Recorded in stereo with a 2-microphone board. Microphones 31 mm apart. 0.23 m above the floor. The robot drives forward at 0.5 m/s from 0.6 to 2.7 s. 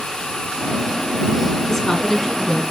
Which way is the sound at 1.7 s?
15° left (ahead or behind).